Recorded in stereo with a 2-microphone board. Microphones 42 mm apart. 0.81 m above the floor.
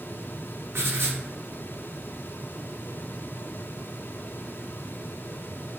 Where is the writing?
85° right, 1.0 m.